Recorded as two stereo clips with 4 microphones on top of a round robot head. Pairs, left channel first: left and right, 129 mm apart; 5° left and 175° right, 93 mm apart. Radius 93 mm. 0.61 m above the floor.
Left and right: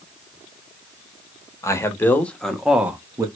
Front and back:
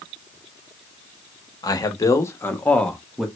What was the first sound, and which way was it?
A man speaking, 35° left.